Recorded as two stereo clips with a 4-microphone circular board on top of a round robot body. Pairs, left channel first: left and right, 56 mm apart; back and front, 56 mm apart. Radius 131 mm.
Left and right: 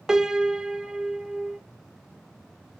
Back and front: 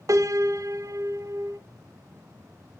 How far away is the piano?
About 1.6 m.